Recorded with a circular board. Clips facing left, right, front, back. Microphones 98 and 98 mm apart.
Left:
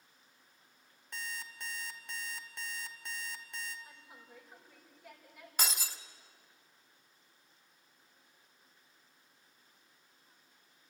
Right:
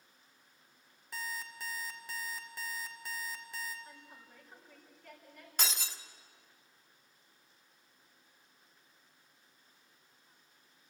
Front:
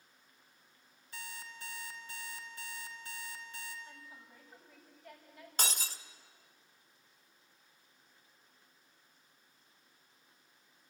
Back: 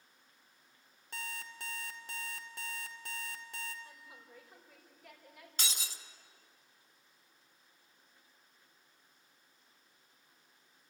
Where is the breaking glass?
5° left, 1.1 m.